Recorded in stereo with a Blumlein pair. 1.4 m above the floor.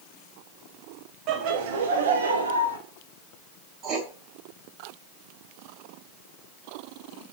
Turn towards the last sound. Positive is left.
turn(degrees=-30)